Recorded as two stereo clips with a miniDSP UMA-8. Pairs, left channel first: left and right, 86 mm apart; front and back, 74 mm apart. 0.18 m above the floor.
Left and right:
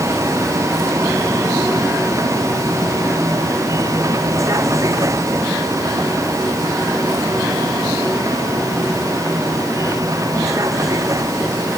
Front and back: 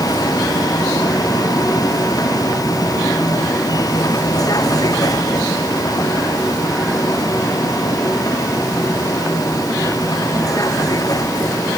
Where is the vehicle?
35° right; by 11.8 s 40° right.